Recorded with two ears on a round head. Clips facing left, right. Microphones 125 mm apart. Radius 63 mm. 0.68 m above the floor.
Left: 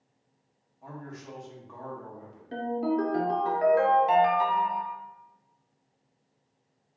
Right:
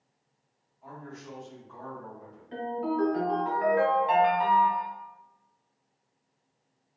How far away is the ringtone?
About 0.8 m.